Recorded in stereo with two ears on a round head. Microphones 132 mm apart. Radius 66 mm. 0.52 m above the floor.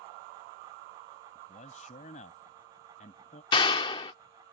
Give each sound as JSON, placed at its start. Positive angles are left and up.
{"t": 1.4, "sound": "a man speaking", "side_deg": 55}
{"t": 3.5, "sound": "a clap", "side_deg": 30}